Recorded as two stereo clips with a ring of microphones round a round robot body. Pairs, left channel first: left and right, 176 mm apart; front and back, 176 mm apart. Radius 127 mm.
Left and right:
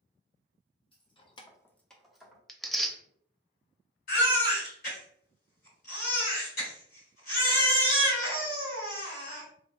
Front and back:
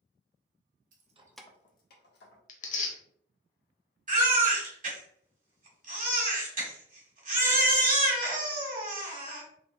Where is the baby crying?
140° left, 1.8 m.